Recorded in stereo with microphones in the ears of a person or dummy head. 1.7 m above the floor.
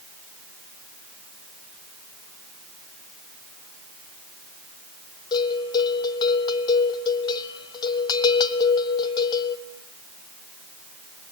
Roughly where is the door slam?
No door slam in this recording.